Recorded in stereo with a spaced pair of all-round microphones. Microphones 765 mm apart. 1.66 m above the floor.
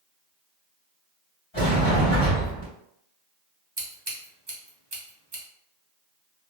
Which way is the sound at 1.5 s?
35° left (ahead or behind).